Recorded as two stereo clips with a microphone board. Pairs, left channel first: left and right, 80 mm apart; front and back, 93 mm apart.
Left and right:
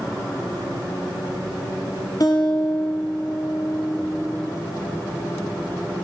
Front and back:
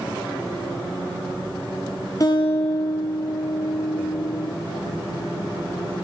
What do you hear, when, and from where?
2.2 s a guitar: 50° left, 5.5 m